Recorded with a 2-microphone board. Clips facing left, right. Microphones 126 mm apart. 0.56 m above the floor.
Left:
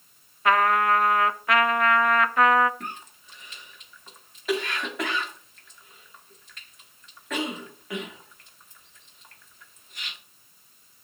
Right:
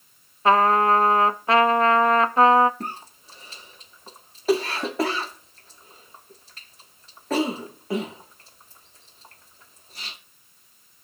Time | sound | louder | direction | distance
0.5 | a trumpet | right 3 dB | 30° right (ahead or behind) | 0.6 m
2.8 | a cough | right 4 dB | 35° right (ahead or behind) | 1.1 m